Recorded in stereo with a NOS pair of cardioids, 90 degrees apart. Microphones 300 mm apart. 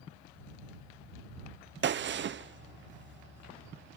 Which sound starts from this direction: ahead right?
A gunshot, at 1.8 s.